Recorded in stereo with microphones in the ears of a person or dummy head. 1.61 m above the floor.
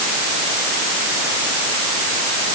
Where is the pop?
No pop in this recording.